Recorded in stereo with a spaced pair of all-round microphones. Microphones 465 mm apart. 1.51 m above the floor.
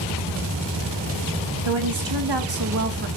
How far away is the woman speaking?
About 1.9 m.